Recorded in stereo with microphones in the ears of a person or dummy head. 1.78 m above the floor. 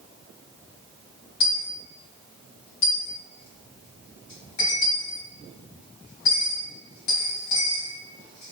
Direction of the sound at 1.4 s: 30° left (ahead or behind).